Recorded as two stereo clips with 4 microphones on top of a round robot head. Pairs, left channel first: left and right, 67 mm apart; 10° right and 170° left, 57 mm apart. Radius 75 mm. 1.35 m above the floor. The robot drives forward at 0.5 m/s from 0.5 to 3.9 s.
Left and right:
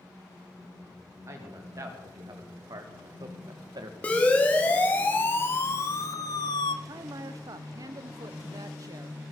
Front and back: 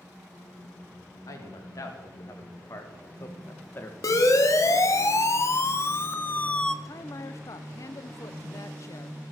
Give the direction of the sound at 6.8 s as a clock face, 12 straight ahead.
2 o'clock.